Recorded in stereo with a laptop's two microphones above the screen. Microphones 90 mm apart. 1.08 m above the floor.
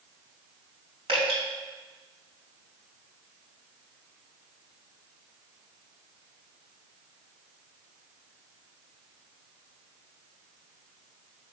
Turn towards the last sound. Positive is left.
turn(degrees=-80)